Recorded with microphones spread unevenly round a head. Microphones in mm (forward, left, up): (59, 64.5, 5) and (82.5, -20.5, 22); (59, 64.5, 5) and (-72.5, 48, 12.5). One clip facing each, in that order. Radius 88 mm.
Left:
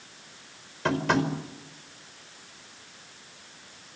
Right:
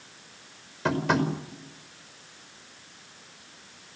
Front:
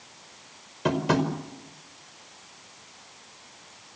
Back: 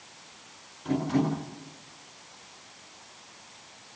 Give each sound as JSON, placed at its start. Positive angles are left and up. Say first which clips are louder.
{"t": 0.8, "sound": "tapping", "louder": "even, front 2 dB", "azimuth_deg": 10, "distance_m": 5.0}